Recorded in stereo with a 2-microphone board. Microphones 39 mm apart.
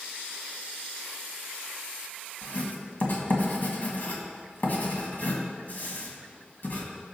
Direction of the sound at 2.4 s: 50° left (ahead or behind).